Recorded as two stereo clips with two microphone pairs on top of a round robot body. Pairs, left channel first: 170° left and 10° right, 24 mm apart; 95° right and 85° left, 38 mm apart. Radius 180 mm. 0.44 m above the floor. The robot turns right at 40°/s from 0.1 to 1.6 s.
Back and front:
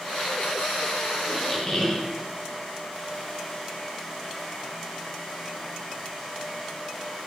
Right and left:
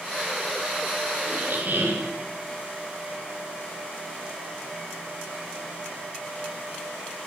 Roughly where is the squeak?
Left.